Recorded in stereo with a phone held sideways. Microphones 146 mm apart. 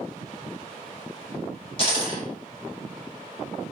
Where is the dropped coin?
35° left (ahead or behind), 1.3 m.